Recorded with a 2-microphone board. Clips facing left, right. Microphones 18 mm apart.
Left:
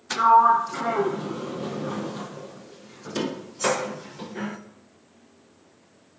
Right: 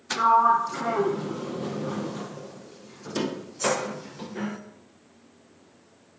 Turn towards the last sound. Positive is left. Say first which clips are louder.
# left 3 dB
turn(degrees=5)  # may be behind; listen again after turning